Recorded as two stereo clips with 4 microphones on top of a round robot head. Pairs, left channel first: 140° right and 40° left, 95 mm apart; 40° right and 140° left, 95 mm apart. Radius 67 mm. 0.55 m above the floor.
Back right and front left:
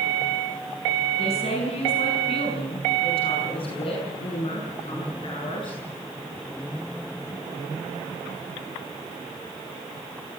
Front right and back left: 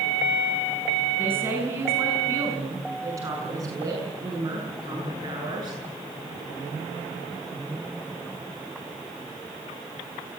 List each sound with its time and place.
1.2 s a woman speaking: 155° right, 6 m; by 5.8 s 175° right, 9 m